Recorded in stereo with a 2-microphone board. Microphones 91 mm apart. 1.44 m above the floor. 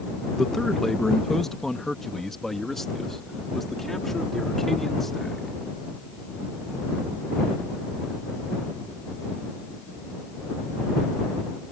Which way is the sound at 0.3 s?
5° left (ahead or behind).